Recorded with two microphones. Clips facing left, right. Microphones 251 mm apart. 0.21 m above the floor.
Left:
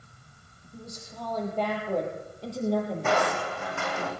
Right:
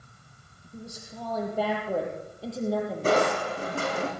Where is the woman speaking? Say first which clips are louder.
Right 1 dB; 10° right (ahead or behind), 8 m; by 4.0 s 5° left (ahead or behind), 7.5 m.